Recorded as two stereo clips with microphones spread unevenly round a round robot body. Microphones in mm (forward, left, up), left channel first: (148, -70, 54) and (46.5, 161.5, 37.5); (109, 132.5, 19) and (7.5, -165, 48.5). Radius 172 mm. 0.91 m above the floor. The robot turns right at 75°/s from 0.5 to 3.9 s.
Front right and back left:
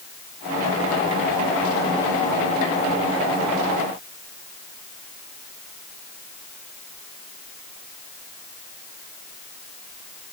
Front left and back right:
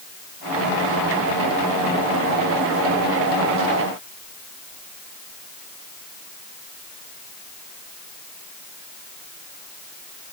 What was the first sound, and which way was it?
Only background noise.